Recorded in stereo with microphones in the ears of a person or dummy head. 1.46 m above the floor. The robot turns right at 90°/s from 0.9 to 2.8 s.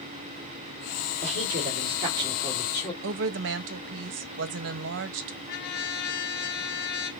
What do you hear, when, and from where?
1.2 s a woman speaking: 110° right, 1.9 m; by 2.9 s 35° left, 1.9 m
3.0 s a woman speaking: 60° right (ahead or behind), 0.6 m
5.5 s a trumpet: 60° left (ahead or behind), 0.9 m